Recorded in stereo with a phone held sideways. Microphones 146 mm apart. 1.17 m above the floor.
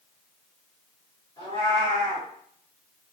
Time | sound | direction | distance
1.4 | a cat meowing | 30° left (ahead or behind) | 1.8 m